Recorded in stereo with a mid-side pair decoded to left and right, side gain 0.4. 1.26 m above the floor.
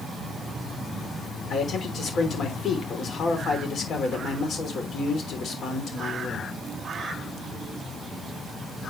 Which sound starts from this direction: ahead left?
A man speaking, at 1.5 s.